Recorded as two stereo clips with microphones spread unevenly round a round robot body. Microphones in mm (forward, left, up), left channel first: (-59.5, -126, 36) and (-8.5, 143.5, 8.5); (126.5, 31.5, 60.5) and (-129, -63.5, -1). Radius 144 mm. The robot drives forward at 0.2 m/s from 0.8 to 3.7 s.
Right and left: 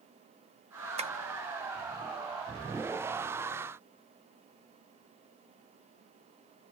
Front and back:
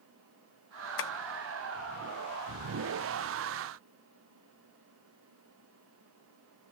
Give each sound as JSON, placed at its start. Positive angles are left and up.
{"t": 1.0, "sound": "tapping", "azimuth_deg": 45, "distance_m": 0.9}